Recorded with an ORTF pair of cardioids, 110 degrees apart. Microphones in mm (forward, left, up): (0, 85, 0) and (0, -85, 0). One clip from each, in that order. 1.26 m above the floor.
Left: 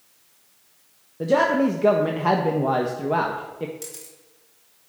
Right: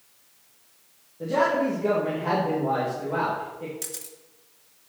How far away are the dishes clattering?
No dishes clattering in this recording.